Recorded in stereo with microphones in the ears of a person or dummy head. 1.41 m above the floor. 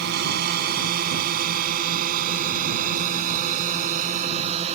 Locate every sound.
0.0 s a drone: 55° right (ahead or behind); by 4.8 s 35° right (ahead or behind)